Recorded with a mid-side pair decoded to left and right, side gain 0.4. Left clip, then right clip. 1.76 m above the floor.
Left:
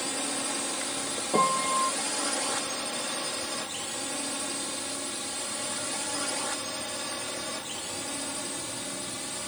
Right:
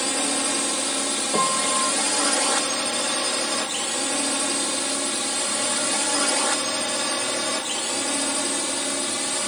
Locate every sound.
0.0 s a drone: 60° right; by 9.5 s 70° right
1.3 s a piano: 5° right